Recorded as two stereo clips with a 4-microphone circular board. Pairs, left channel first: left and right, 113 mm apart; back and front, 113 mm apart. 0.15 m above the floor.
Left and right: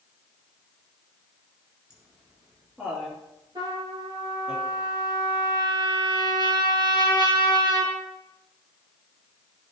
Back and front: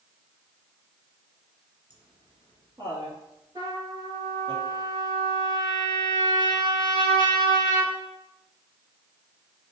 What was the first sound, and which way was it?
Laughter, 10° right.